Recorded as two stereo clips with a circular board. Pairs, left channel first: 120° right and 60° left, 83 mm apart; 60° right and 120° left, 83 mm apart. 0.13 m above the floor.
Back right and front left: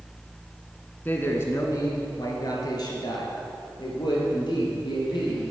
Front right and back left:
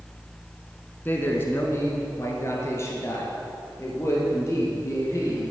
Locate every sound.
1.1 s a man speaking: 85° right, 1.1 m; by 5.4 s 110° right, 3.5 m